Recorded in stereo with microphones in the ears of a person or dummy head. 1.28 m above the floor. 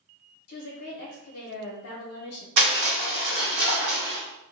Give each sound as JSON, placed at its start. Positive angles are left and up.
{"t": 0.5, "sound": "a woman speaking", "side_deg": 65, "distance_m": 0.8}
{"t": 2.6, "sound": "crushing", "side_deg": -60, "distance_m": 1.6}